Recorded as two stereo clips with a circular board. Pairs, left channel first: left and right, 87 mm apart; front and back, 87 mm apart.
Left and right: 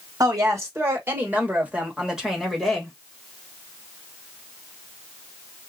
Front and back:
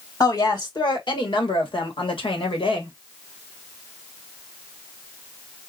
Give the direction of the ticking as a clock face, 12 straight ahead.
I don't hear ticking.